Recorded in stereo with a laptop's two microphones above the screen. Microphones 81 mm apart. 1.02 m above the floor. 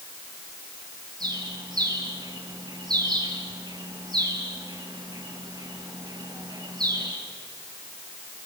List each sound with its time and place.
1.2 s a bird: 55° right (ahead or behind), 6.5 m